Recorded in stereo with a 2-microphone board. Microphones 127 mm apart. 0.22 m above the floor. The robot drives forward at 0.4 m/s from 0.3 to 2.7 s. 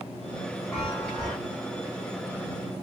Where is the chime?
10° left (ahead or behind), 2 m; by 1.4 s 5° left (ahead or behind), 2.5 m.